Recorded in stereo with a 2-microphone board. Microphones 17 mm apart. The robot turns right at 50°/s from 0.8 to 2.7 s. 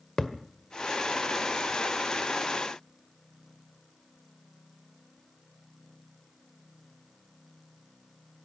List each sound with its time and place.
0.2 s a thud: 30° left (ahead or behind), 1.5 m